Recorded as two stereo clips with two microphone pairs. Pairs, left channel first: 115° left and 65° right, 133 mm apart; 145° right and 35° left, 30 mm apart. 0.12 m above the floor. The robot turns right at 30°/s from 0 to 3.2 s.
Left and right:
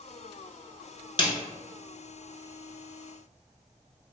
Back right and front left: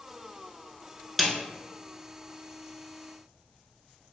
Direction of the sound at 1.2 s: 130° left.